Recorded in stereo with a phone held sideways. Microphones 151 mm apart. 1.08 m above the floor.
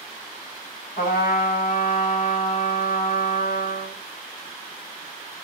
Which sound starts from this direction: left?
A trumpet, at 1.0 s.